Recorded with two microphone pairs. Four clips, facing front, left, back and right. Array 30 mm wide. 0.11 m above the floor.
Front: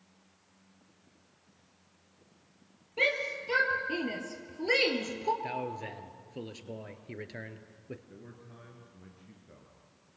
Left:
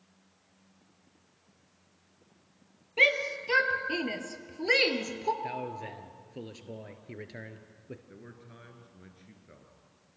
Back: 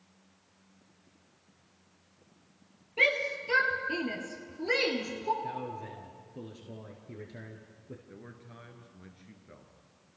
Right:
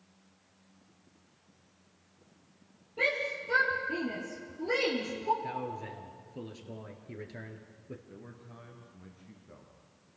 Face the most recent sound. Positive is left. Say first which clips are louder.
# even, back 1 dB
turn(degrees=145)